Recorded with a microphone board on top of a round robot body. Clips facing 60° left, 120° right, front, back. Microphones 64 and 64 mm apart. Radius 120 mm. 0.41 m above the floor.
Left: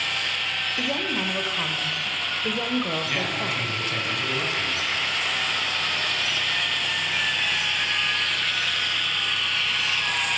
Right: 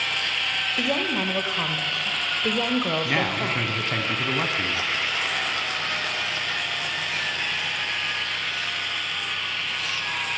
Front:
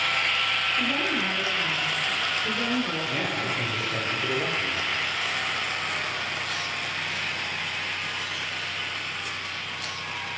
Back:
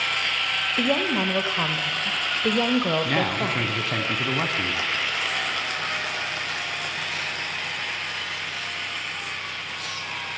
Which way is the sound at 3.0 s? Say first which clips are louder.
Right 3 dB, back 4 dB; 170° right.